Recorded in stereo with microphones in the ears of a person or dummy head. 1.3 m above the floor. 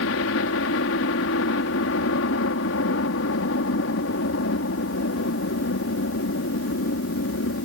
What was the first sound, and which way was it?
A helicopter, 60° left (ahead or behind).